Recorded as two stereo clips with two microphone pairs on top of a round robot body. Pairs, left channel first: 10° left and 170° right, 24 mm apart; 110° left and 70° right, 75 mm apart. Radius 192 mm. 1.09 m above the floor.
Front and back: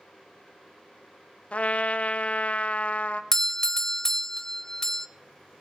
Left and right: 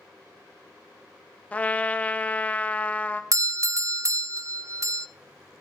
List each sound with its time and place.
1.5 s a trumpet: 40° left, 0.6 m
3.3 s a doorbell: 45° right, 0.5 m